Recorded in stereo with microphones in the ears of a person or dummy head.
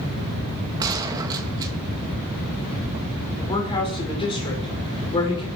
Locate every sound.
0.8 s a gunshot: 15° right (ahead or behind), 1.5 m
3.4 s a woman speaking: 35° left (ahead or behind), 5.5 m